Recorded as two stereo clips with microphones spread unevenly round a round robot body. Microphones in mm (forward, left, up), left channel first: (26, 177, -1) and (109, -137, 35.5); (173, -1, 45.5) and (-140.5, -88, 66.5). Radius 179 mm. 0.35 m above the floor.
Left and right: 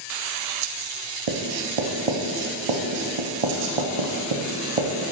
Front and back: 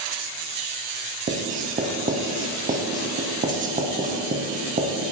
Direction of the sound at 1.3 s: 95° right.